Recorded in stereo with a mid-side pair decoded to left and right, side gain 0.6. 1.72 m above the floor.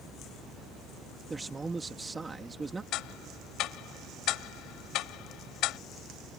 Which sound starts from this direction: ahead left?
Ticking, at 2.9 s.